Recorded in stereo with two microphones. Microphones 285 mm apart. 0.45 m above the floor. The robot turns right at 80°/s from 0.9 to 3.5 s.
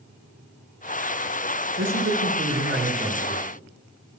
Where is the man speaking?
125° right, 2 m; by 3.5 s 10° left, 2 m.